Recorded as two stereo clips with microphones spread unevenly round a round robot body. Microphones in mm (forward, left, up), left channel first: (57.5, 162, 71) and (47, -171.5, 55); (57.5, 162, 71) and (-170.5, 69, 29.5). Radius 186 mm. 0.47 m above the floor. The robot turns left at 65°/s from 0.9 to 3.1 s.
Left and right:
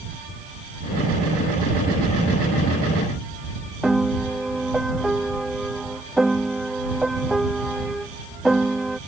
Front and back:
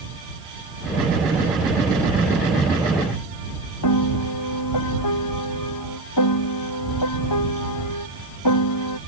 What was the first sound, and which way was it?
A piano, straight ahead.